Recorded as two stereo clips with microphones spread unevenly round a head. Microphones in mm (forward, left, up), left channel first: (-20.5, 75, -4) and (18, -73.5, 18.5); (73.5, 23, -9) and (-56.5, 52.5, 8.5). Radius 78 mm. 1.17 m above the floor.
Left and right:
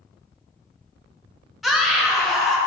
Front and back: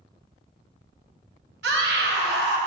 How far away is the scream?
About 1.7 m.